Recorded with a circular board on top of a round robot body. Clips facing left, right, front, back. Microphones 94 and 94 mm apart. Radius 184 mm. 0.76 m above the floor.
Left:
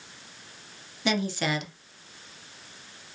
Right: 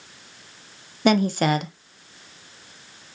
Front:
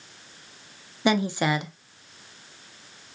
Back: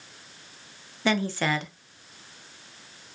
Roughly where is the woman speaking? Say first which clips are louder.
Right 8 dB, front 2 dB; right.